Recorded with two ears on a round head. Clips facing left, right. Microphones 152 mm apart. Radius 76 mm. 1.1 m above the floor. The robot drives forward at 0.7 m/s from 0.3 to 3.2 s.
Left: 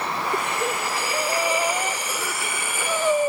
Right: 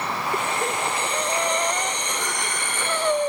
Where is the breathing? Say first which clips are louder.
Right 1 dB; 5° left (ahead or behind).